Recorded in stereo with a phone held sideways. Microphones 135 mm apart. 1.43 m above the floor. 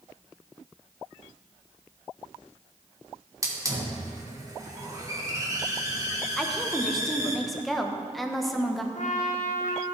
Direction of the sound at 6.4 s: Centre (ahead or behind).